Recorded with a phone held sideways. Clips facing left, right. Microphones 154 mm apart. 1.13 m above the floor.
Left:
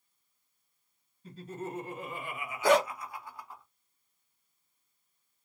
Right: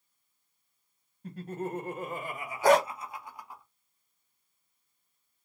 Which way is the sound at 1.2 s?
60° right (ahead or behind).